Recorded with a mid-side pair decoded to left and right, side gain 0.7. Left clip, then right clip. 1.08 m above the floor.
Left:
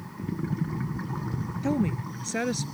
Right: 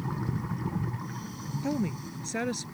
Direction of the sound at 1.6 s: 15° left.